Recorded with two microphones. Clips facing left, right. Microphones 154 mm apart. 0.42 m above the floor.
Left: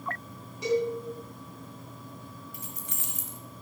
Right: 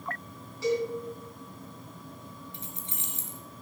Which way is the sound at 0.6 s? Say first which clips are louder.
Left 1 dB; 20° left (ahead or behind).